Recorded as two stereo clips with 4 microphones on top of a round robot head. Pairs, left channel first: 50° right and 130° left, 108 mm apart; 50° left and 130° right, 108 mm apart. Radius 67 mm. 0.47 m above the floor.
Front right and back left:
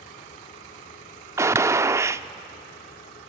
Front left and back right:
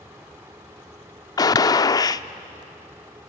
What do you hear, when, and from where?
1.4 s a gunshot: 80° left, 0.6 m